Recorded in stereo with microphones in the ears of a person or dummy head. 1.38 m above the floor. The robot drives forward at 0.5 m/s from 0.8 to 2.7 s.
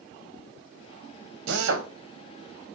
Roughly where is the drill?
Right.